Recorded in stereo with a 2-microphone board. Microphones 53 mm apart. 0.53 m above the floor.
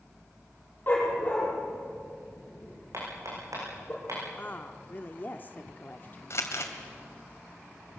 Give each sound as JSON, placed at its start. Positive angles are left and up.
{"t": 0.9, "sound": "a dog barking", "side_deg": 35, "distance_m": 7.0}
{"t": 2.9, "sound": "hammering", "side_deg": -80, "distance_m": 9.5}
{"t": 4.4, "sound": "a woman speaking", "side_deg": 35, "distance_m": 1.0}
{"t": 6.3, "sound": "crumpling", "side_deg": 55, "distance_m": 2.5}